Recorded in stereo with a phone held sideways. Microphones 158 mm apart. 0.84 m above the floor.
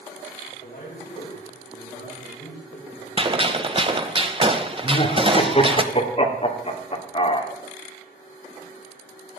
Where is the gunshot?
35° right (ahead or behind), 0.9 m.